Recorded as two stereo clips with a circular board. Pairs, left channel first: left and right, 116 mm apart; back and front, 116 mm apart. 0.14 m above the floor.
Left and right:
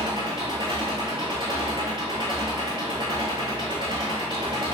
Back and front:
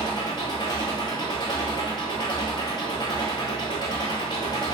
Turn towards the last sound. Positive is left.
turn(degrees=-135)